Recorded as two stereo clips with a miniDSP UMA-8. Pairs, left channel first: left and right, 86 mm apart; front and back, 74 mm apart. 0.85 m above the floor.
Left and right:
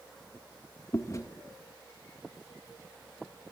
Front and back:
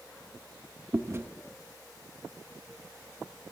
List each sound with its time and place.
0.9 s chewing: 135° left, 0.7 m